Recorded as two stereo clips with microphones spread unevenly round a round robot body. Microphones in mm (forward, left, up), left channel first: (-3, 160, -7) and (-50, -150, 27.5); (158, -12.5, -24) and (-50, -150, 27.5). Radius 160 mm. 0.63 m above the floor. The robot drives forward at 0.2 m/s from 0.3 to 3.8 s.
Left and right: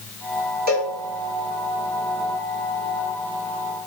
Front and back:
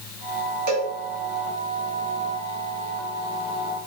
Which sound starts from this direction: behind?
A cowbell, at 0.7 s.